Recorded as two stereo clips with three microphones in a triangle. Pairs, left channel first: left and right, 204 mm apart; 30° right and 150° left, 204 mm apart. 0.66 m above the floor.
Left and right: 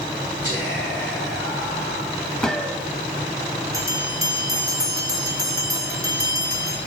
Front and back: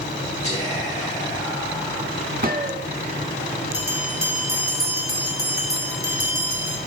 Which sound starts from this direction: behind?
A gunshot, at 2.4 s.